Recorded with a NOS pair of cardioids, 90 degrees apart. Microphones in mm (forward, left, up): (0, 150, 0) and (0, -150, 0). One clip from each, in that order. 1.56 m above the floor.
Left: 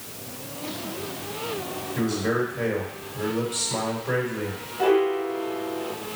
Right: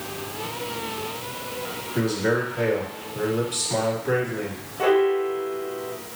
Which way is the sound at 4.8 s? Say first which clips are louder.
Right 2 dB; 20° right.